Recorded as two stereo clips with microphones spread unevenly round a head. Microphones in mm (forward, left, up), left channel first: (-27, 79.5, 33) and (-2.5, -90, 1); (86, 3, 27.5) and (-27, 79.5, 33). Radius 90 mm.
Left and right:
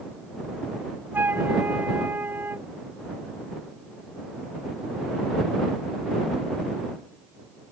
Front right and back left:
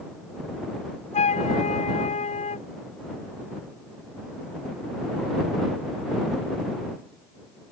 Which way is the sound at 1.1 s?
Straight ahead.